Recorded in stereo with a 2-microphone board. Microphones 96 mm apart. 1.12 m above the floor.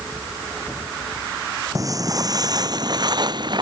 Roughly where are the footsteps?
Right.